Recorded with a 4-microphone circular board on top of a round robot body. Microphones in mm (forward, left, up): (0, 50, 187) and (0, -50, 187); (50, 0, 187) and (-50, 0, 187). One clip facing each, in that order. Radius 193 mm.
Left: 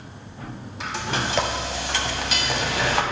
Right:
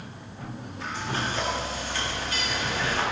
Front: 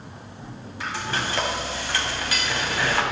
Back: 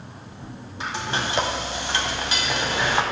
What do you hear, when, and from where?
0.8 s frying: 110° left, 1.4 m